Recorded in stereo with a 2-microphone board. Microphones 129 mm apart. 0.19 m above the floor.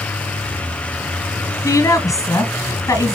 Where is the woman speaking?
25° left (ahead or behind), 1.5 m.